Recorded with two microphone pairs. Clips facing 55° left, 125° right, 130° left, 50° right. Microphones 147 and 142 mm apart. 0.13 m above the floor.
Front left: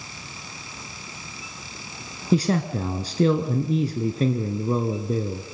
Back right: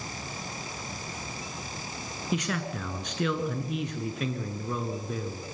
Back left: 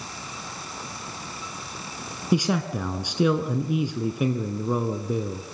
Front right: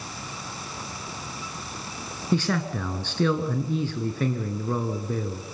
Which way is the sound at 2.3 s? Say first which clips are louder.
Front left 10 dB, back left 2 dB; 60° left.